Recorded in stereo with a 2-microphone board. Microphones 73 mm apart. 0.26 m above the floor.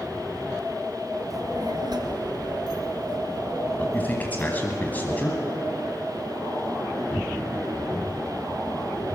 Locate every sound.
1.3 s a child speaking: 55° right (ahead or behind), 2.5 m; by 4.8 s 40° right (ahead or behind), 5 m
3.8 s a man speaking: 25° left (ahead or behind), 2 m